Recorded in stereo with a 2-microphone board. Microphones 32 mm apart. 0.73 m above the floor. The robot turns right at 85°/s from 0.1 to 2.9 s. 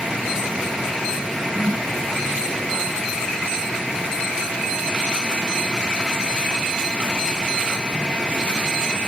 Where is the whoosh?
65° right (ahead or behind); by 1.9 s 80° right.